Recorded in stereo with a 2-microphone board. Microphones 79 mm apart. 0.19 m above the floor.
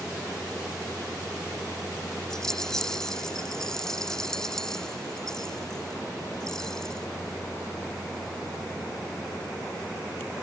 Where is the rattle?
5° left (ahead or behind).